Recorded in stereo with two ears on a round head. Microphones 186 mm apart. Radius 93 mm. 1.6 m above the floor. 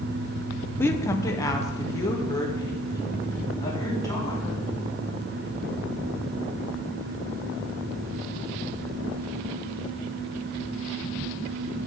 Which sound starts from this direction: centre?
A woman speaking, at 0.8 s.